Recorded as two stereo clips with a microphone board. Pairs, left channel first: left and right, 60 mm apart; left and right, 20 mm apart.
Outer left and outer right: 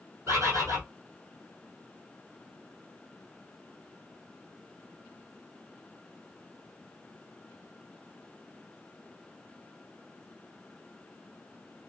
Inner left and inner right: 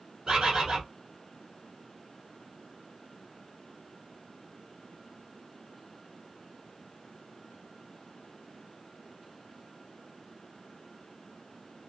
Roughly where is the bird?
Right.